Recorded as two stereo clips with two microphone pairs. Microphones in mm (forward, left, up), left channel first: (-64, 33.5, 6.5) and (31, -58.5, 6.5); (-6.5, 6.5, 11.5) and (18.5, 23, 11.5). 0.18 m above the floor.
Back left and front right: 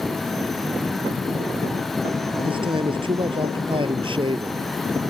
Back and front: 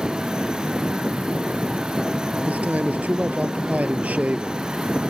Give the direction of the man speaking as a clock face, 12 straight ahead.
12 o'clock.